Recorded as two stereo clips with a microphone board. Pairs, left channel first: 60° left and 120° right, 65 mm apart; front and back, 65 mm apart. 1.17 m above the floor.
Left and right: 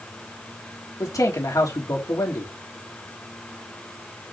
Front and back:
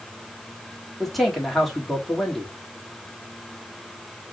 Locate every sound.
1.0 s a man speaking: 90° left, 3 m